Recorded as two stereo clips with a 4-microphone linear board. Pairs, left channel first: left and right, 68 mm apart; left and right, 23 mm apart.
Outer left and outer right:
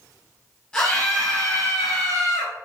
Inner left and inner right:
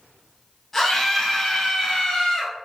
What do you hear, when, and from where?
0.7 s a scream: 15° left (ahead or behind), 1.4 m; by 2.5 s 45° left (ahead or behind), 1.9 m